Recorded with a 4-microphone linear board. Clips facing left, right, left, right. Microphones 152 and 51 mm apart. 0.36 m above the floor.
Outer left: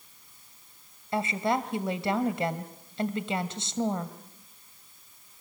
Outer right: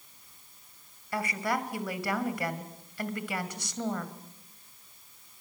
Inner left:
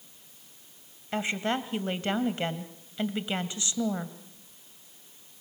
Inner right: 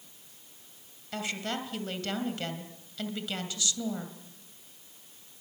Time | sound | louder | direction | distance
1.1 | a woman speaking | outer left 4 dB, inner left 5 dB | 25° left (ahead or behind) | 1.9 m